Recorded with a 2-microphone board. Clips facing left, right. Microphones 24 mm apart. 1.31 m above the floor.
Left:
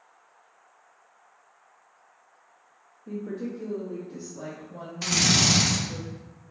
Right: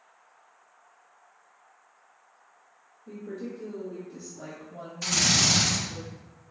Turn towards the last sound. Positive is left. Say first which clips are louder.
# left 1 dB
turn(degrees=40)  # may be behind; listen again after turning